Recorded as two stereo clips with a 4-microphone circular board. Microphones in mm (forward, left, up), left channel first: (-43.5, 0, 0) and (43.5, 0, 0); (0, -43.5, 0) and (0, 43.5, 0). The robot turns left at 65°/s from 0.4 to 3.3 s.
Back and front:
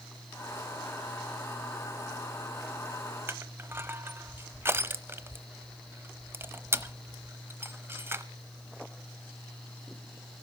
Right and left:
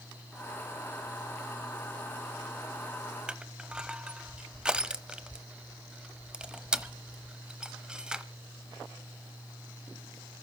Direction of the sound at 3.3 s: 25° left.